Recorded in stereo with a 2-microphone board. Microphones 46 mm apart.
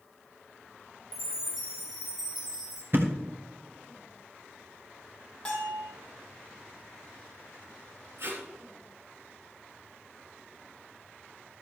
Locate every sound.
1.1 s a chime: 15° right (ahead or behind), 3 m
2.9 s a thud: 50° right (ahead or behind), 1.9 m
5.5 s a bell: 25° left (ahead or behind), 4.5 m
8.2 s tape being pulled: 60° right (ahead or behind), 3.5 m